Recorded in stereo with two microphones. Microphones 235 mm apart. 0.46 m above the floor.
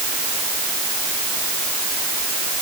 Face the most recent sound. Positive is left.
No sound to turn to.